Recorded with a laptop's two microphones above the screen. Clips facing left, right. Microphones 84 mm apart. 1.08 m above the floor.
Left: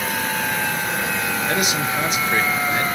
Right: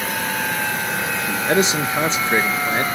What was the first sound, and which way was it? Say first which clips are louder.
A man speaking: right 6 dB; 30° right (ahead or behind).